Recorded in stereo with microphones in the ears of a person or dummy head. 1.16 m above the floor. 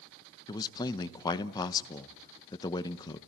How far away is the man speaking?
About 1.0 m.